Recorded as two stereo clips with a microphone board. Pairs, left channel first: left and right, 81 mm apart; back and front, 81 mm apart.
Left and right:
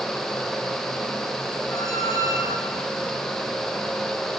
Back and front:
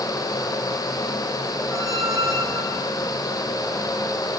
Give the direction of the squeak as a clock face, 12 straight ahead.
10 o'clock.